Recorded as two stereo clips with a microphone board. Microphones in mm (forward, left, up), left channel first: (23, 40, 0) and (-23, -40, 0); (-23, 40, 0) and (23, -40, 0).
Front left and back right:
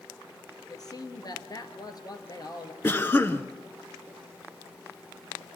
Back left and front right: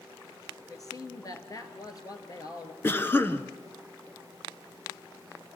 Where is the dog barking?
No dog barking in this recording.